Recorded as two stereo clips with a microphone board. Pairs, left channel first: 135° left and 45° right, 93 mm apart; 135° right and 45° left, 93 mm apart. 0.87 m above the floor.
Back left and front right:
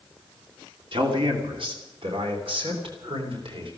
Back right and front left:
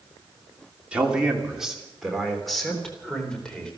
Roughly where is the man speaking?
Ahead right.